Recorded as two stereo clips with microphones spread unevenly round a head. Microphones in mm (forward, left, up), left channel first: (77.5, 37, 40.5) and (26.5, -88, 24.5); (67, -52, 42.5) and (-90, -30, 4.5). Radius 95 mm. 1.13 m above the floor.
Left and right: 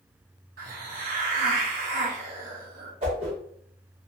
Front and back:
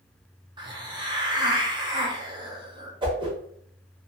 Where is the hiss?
120° right, 0.8 m.